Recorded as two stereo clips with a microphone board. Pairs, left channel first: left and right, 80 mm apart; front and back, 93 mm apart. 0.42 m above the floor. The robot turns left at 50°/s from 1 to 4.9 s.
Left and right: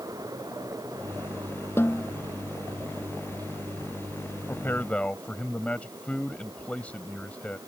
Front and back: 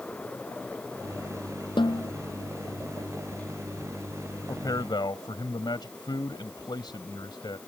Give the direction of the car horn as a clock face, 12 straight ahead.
I don't hear a car horn.